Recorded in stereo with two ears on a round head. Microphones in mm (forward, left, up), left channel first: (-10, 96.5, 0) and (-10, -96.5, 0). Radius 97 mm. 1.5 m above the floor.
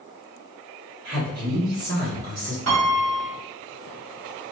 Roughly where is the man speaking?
Right.